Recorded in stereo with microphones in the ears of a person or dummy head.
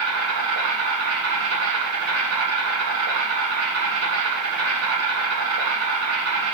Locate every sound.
0.0 s an insect: 85° right, 4 m